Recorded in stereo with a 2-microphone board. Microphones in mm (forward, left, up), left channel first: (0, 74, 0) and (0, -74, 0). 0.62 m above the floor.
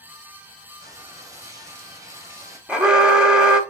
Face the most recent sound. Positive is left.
turn(degrees=-5)  # may be behind; listen again after turning